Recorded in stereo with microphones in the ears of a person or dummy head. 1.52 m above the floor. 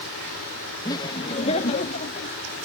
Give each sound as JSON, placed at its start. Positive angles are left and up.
{"t": 0.8, "sound": "laughter", "side_deg": 20}